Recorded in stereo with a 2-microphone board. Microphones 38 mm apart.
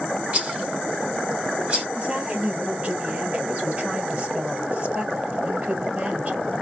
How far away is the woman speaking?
About 1.8 m.